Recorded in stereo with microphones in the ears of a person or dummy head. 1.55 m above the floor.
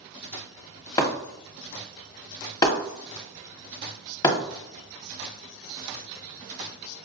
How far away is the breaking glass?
About 1.1 m.